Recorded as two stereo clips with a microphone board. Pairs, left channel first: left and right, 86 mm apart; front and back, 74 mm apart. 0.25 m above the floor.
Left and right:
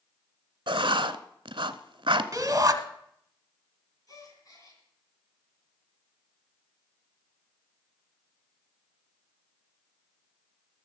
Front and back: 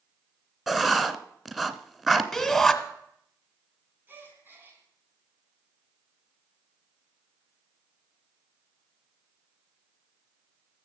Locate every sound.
0.7 s writing: 95° right, 0.7 m
2.3 s a shout: 90° right, 1.1 m
4.1 s a gasp: 125° left, 3 m